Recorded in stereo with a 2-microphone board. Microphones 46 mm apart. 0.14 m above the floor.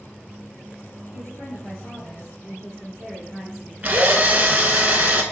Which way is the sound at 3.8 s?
40° right (ahead or behind).